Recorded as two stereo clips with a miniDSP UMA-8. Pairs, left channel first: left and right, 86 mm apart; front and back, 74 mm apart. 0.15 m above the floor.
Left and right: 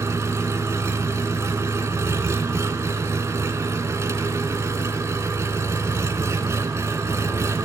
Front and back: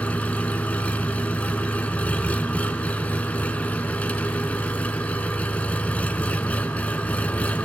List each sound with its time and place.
0.0 s an engine running: 60° right, 0.9 m